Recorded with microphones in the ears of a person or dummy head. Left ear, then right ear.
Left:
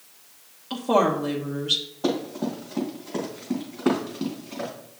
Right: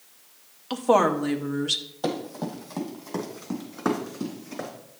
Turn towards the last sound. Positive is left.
turn(degrees=-65)  # may be behind; listen again after turning